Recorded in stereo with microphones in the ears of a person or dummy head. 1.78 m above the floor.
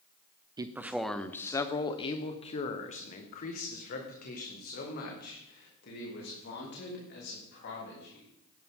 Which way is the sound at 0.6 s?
25° right (ahead or behind).